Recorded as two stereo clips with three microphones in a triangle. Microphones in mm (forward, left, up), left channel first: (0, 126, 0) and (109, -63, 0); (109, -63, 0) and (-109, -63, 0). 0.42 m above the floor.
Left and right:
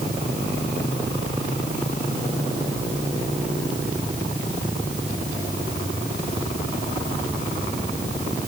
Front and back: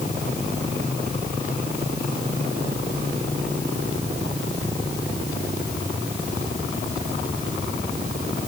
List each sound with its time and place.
Only background noise.